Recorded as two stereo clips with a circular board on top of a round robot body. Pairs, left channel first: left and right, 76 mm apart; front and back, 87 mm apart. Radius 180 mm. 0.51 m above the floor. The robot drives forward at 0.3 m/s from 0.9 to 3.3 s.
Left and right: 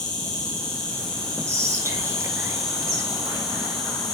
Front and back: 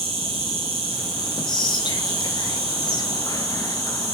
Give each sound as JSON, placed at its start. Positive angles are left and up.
{"t": 0.0, "sound": "an insect", "azimuth_deg": 170, "distance_m": 0.8}
{"t": 1.5, "sound": "whispering", "azimuth_deg": -40, "distance_m": 2.5}